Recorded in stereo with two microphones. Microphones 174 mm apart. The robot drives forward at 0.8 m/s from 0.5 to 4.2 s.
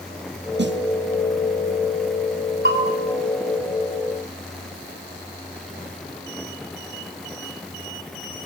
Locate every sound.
0.6 s a snare drum: 70° right (ahead or behind), 0.7 m; by 0.8 s 75° right (ahead or behind), 0.7 m
2.6 s a bell: 65° right (ahead or behind), 4.5 m